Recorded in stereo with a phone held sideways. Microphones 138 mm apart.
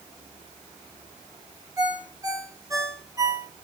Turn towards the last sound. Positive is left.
turn(degrees=-25)  # may be behind; listen again after turning